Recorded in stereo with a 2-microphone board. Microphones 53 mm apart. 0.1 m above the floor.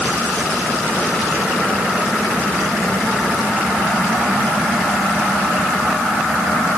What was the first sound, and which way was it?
Only background noise.